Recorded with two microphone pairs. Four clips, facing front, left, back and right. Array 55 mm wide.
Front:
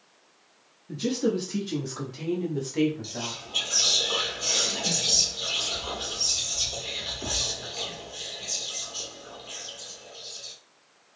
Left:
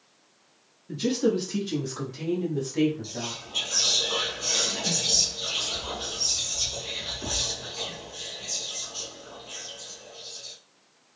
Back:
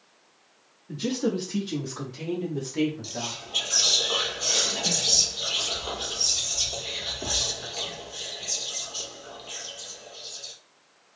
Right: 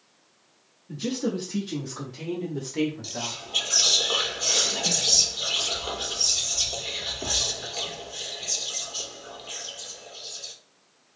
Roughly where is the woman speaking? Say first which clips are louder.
Left 4 dB, front 1 dB; behind left.